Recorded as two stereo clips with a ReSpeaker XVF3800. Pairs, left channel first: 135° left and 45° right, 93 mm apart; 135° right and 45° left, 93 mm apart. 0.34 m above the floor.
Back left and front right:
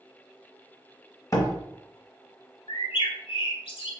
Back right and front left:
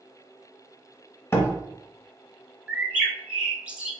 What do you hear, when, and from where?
1.3 s a door slam: 175° left, 1.0 m
2.7 s a bird: 120° left, 0.7 m